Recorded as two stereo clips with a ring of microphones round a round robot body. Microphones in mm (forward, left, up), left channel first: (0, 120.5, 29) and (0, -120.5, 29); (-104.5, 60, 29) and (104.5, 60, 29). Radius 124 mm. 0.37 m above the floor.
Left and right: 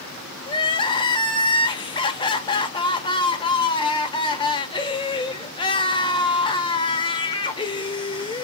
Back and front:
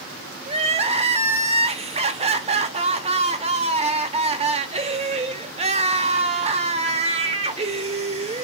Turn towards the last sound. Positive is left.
turn(degrees=35)